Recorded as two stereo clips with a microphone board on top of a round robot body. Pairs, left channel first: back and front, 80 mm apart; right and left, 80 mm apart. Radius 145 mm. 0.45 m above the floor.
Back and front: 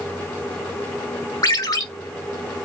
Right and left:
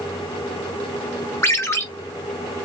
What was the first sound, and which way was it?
A ringtone, 145° right.